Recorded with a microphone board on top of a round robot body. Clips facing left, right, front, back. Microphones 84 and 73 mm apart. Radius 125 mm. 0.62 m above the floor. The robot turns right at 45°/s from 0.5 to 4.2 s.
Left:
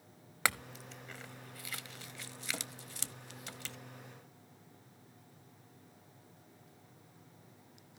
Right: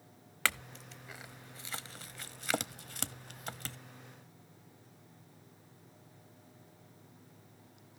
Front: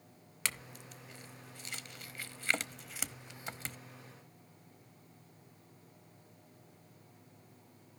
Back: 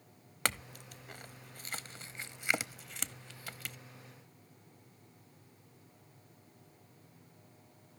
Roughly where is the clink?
Behind.